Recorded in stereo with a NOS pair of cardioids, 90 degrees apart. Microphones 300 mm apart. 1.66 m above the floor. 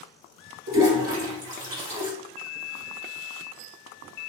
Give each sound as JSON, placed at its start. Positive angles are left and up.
{"t": 0.7, "sound": "a toilet flushing", "azimuth_deg": -55, "distance_m": 1.9}